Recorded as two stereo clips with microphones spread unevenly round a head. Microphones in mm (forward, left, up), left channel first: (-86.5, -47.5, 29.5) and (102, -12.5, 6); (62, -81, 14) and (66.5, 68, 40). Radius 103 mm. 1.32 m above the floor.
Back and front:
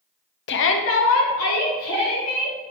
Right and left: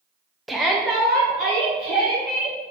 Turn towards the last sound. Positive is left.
turn(degrees=180)